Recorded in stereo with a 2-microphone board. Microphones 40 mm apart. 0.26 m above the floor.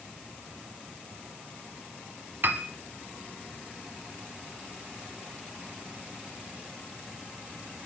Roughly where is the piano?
Right.